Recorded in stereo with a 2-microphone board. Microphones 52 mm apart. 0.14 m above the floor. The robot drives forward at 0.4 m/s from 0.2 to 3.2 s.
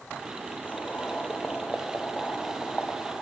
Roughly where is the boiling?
Left.